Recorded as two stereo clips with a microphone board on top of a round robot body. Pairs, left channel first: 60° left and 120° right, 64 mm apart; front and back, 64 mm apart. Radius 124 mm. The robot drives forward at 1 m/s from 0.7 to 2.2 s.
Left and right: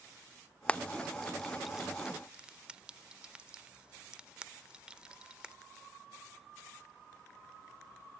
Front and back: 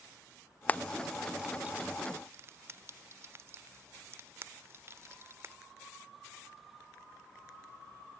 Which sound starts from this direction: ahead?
Frying, at 0.7 s.